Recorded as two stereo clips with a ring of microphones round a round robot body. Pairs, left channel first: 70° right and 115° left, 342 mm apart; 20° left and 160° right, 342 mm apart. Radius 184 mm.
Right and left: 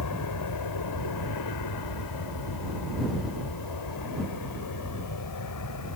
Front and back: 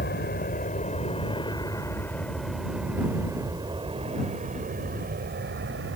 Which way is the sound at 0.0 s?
35° right.